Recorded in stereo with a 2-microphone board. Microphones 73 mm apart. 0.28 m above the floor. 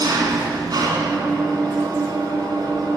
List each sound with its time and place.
0.0 s an engine running: 70° right (ahead or behind), 1.3 m